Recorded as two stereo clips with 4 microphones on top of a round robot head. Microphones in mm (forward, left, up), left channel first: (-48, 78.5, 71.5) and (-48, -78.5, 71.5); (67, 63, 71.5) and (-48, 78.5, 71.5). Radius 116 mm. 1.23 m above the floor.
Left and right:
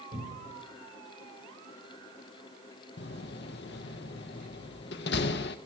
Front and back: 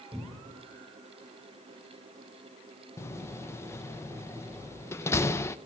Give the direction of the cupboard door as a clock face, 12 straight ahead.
4 o'clock.